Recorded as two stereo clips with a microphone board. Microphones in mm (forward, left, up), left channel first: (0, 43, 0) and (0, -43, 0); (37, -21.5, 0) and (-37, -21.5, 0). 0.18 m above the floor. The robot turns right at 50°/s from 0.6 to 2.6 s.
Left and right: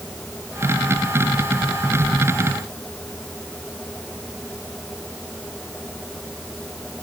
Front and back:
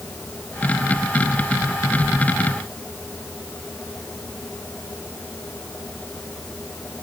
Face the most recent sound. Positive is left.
No sound to turn to.